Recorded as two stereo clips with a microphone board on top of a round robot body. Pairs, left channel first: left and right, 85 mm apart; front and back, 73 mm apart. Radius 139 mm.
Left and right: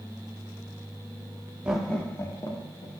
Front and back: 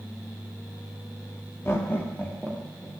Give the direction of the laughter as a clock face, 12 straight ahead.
1 o'clock.